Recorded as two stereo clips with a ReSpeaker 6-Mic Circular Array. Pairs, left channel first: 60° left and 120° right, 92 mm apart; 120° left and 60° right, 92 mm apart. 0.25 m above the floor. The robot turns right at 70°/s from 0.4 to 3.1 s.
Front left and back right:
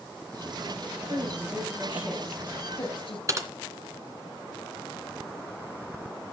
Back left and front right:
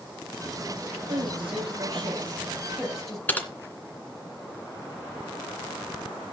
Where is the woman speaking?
110° right, 8 m; by 3.2 s 35° left, 8 m.